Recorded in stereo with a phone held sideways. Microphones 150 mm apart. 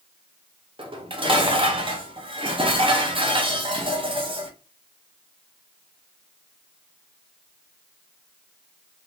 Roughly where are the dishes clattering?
Right.